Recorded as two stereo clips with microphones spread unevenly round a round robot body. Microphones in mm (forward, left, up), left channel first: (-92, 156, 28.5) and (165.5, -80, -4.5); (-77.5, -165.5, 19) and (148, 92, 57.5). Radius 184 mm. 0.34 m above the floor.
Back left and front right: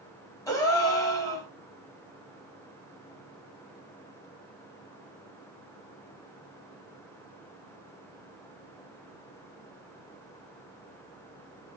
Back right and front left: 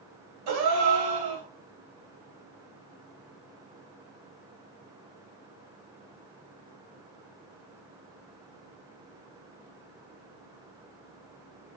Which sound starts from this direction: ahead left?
A gasp, at 0.5 s.